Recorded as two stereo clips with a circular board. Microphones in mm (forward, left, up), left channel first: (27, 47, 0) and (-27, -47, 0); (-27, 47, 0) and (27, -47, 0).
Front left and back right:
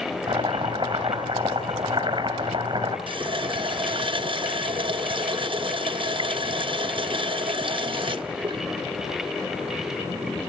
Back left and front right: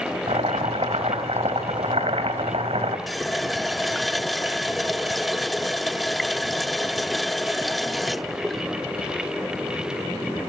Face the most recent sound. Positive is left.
turn(degrees=-150)